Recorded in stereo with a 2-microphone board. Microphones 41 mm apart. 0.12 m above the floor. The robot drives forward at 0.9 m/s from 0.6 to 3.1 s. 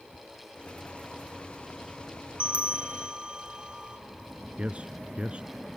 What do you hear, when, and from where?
2.4 s a bell: 30° right (ahead or behind); by 4.0 s 25° right (ahead or behind)
4.6 s a man speaking: 30° right (ahead or behind)